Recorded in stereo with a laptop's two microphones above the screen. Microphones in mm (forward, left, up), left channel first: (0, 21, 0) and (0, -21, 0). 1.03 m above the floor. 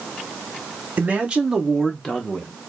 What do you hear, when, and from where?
1.0 s a man speaking: 35° right (ahead or behind), 0.7 m; by 2.5 s 35° left (ahead or behind), 1.0 m